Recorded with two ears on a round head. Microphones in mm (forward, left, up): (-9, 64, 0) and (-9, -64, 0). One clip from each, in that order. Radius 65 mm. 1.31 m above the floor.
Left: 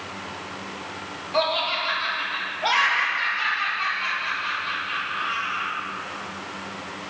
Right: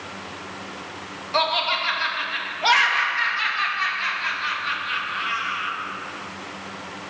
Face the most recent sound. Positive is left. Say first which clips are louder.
# right 2 dB
turn(degrees=-30)  # may be behind; listen again after turning